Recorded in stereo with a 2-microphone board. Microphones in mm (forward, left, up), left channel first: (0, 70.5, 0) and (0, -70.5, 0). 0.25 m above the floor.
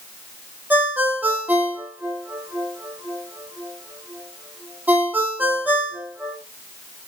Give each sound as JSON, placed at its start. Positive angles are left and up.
{"t": 0.7, "sound": "a ringtone", "side_deg": -10, "distance_m": 6.5}